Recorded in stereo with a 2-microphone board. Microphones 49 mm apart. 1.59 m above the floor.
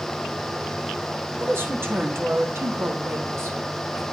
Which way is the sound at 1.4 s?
50° right (ahead or behind).